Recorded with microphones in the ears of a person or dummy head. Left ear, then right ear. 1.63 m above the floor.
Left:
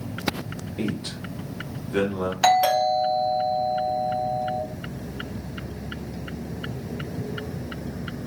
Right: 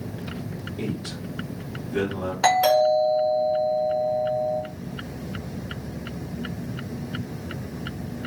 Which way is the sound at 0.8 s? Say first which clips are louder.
Left 2 dB; 50° left (ahead or behind).